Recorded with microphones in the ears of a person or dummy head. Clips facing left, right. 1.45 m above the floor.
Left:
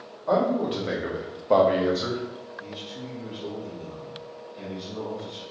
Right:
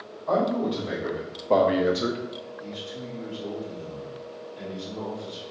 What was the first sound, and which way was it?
A man speaking, 40° left (ahead or behind).